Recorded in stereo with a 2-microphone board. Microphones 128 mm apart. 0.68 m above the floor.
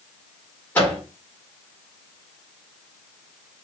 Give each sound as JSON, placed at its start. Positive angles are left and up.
{"t": 0.8, "sound": "a microwave", "side_deg": 15, "distance_m": 1.4}